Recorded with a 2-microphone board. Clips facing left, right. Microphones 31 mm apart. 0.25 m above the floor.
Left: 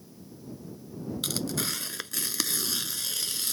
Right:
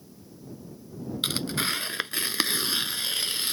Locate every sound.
1.2 s tearing paper: 35° right (ahead or behind)